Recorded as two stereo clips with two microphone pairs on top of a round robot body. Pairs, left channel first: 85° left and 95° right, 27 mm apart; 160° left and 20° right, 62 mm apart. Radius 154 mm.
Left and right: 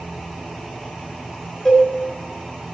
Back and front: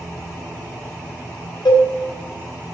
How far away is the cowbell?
About 3 m.